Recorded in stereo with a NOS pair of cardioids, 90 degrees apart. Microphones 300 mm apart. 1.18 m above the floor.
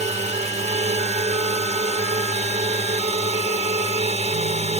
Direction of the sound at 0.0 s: 20° right.